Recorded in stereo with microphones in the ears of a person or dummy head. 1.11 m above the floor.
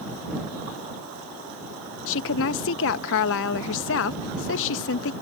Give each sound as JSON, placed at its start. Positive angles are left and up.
{"t": 2.1, "sound": "a woman speaking", "side_deg": 65}